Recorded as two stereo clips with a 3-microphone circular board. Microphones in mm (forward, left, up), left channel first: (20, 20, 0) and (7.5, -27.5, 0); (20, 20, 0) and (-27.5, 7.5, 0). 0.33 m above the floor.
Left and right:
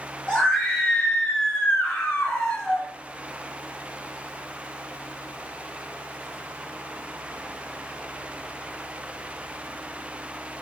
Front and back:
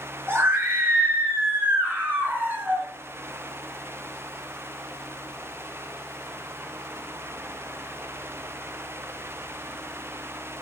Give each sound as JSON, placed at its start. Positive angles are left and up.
{"t": 0.3, "sound": "a scream", "azimuth_deg": 150, "distance_m": 5.0}